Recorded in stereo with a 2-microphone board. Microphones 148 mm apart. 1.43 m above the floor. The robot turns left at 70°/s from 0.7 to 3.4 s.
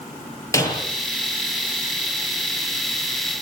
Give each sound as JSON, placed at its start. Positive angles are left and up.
{"t": 0.5, "sound": "breaking glass", "side_deg": 20, "distance_m": 9.0}